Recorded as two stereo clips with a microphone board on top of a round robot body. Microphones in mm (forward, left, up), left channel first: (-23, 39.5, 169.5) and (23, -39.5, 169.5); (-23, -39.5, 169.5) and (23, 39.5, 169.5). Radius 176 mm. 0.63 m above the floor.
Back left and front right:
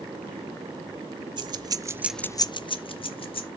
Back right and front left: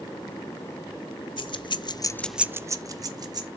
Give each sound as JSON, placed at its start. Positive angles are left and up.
{"t": 1.4, "sound": "keys jangling", "azimuth_deg": -95, "distance_m": 1.0}